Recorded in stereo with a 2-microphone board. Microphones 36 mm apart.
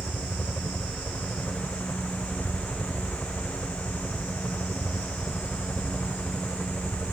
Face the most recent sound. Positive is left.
turn(degrees=60)  # may be behind; listen again after turning